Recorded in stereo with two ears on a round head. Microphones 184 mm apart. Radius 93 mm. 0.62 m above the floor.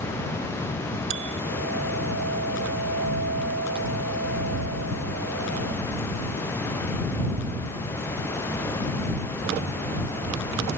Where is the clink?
60° right (ahead or behind).